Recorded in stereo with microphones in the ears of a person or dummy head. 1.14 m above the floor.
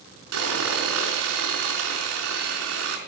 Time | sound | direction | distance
0.3 | sawing | 80° right | 4 m